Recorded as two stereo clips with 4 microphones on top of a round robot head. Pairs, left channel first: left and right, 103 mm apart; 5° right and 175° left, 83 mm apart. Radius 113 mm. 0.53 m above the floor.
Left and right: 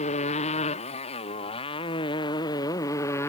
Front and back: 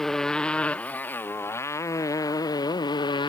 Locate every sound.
0.0 s a motorcycle: 75° left; by 3.3 s 20° left